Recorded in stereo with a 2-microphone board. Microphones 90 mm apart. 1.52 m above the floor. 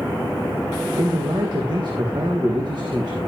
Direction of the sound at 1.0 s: 55° right (ahead or behind).